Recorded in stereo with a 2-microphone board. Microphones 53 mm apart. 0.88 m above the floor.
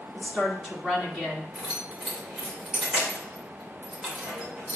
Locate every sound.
0.1 s a woman speaking: centre (ahead or behind), 2.5 m
1.6 s keys jangling: 15° right (ahead or behind), 3 m